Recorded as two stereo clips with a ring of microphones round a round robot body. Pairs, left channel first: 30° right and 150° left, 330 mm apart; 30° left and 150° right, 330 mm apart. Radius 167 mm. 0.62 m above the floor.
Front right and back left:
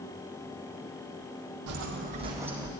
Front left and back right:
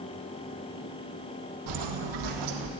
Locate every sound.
1.7 s footsteps: 175° right, 1.2 m; by 2.7 s 120° right, 1.8 m